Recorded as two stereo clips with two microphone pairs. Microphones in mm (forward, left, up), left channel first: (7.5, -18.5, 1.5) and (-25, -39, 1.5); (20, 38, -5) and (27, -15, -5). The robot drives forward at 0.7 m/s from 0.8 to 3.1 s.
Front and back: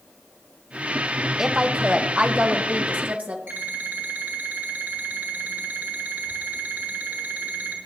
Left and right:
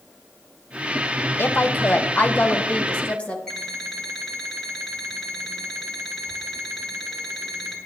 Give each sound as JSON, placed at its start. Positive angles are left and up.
{"t": 1.4, "sound": "a woman speaking", "azimuth_deg": 135, "distance_m": 0.9}
{"t": 3.5, "sound": "an alarm clock", "azimuth_deg": -175, "distance_m": 4.0}